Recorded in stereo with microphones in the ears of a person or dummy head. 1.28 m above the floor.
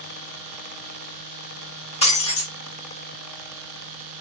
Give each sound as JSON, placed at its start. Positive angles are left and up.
{"t": 2.0, "sound": "breaking glass", "side_deg": 35, "distance_m": 7.0}